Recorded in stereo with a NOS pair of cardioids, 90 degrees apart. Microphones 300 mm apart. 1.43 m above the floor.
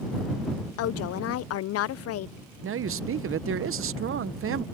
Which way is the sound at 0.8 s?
55° left.